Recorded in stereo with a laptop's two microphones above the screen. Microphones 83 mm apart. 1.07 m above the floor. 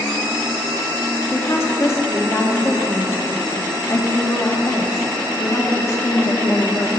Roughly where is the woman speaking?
Left.